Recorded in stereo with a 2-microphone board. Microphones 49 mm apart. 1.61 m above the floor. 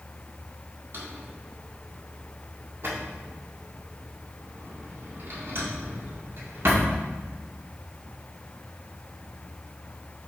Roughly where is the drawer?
Right.